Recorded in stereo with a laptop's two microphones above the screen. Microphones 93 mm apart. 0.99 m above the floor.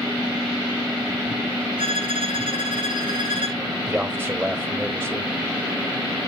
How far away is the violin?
About 4 m.